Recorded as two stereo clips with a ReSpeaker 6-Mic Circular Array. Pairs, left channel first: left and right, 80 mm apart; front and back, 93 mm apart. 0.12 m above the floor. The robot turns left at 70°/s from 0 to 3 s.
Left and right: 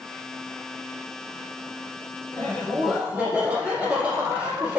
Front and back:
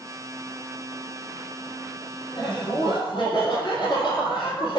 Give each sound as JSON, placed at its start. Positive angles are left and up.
{"t": 2.3, "sound": "laughter", "azimuth_deg": 35, "distance_m": 1.7}